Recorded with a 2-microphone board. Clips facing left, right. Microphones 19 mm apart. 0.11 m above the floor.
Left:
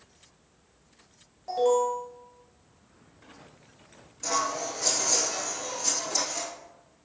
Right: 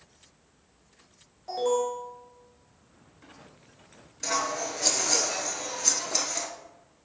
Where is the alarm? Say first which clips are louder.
Left 3 dB; 5° left (ahead or behind), 1.5 m.